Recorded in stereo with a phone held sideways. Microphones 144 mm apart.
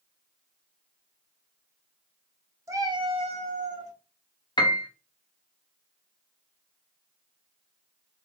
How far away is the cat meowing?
About 0.7 m.